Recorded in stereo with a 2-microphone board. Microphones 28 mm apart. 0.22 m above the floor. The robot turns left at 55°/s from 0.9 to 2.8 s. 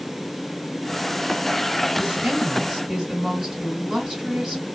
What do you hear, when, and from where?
2.0 s a woman speaking: 75° right, 2 m; by 4.6 s 120° right, 2 m